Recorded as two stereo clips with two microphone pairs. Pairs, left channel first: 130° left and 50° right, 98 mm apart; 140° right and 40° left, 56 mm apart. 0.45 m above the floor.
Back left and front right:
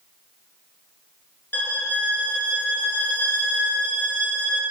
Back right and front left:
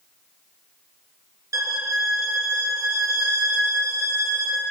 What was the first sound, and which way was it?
A violin, 60° left.